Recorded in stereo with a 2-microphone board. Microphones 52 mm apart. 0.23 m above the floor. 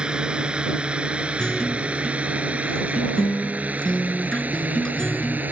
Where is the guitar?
15° left (ahead or behind).